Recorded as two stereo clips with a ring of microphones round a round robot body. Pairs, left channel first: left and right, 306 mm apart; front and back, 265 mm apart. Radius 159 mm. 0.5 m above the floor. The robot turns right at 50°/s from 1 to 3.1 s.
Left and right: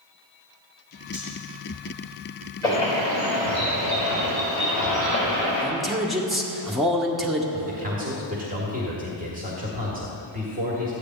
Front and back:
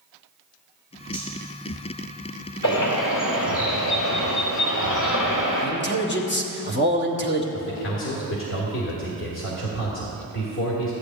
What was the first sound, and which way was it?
Cutlery clinking, 115° right.